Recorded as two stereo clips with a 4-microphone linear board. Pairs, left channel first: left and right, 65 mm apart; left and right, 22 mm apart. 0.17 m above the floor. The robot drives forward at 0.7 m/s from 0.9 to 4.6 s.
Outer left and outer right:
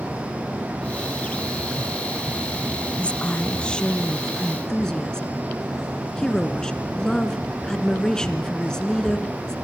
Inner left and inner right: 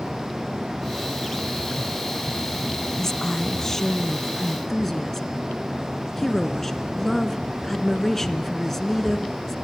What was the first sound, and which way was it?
A woman speaking, 20° left (ahead or behind).